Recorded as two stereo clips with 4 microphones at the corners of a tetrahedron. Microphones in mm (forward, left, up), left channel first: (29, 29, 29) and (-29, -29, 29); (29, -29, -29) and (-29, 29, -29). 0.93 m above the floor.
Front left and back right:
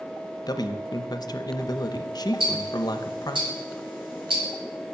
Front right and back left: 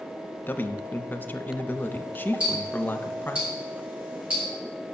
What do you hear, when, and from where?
0.5 s a man speaking: 20° left, 0.6 m
2.4 s ticking: 150° right, 3.5 m